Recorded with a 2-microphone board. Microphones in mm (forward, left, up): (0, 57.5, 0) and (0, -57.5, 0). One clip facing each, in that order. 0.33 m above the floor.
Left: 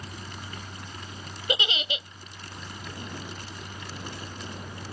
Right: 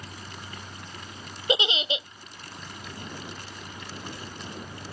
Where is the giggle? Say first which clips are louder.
Right 4 dB; 25° right (ahead or behind).